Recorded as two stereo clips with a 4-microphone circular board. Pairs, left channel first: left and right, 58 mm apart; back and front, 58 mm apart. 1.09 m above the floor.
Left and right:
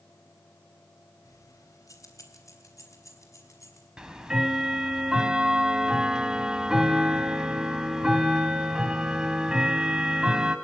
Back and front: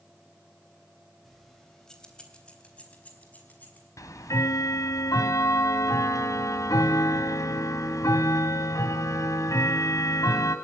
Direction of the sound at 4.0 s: 165° right.